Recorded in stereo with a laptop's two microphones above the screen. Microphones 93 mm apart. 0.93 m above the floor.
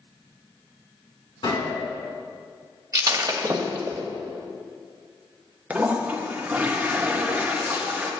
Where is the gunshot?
75° left (ahead or behind), 3.5 m.